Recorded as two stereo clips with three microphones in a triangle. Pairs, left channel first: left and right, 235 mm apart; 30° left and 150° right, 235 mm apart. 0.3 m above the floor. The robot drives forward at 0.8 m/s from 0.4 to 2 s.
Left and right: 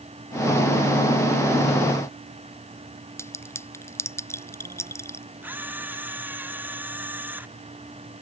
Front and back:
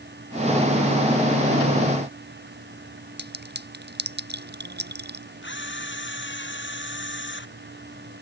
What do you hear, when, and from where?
3.2 s a clink: 170° left
5.4 s a camera shutter: 10° right